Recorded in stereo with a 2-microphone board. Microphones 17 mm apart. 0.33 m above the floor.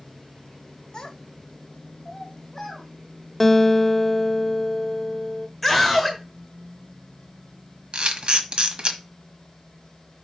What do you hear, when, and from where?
0.9 s a child speaking: 40° left (ahead or behind), 1.3 m; by 2.9 s 20° left (ahead or behind), 2.5 m
3.4 s a guitar: 15° left (ahead or behind), 0.5 m
5.6 s a scream: 10° left (ahead or behind), 1.1 m
7.9 s a camera shutter: 65° right (ahead or behind), 1.2 m